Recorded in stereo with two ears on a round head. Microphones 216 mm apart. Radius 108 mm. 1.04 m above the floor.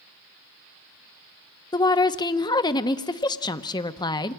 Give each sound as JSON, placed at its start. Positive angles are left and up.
{"t": 1.7, "sound": "a woman speaking", "side_deg": 20, "distance_m": 0.8}